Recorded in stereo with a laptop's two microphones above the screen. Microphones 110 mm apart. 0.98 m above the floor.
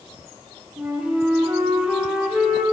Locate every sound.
0.8 s a flute: 10° right (ahead or behind), 0.9 m